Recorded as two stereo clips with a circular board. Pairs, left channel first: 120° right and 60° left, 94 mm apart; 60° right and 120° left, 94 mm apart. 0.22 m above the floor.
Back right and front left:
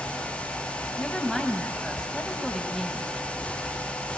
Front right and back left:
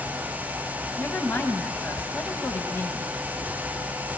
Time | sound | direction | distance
1.0 | a woman speaking | 40° right | 1.1 m